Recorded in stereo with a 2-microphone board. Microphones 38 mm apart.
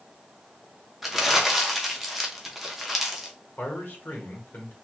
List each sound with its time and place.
1.0 s crumpling: 5° right (ahead or behind), 0.7 m
3.6 s a man speaking: 55° left (ahead or behind), 1.1 m